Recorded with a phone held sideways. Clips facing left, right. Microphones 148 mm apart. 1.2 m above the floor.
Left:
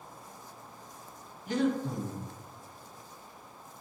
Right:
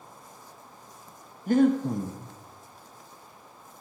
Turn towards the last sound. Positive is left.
turn(degrees=-50)  # may be behind; listen again after turning